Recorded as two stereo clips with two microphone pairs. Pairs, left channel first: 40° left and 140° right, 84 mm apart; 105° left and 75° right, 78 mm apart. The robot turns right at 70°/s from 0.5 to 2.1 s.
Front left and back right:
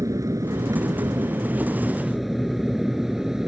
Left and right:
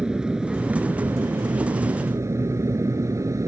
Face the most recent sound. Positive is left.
turn(degrees=-55)